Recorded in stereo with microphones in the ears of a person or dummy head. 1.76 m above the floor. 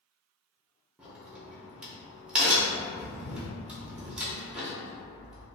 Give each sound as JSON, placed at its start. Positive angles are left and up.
{"t": 1.0, "sound": "a crack", "side_deg": -5, "distance_m": 0.7}